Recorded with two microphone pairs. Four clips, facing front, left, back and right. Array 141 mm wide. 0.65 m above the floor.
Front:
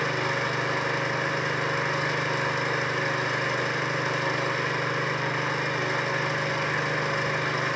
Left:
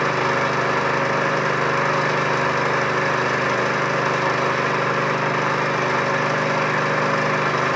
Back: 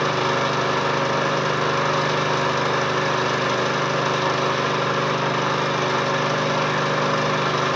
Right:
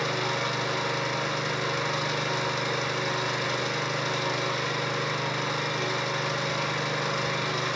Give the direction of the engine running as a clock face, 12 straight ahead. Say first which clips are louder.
Left 9 dB, back 7 dB; 7 o'clock.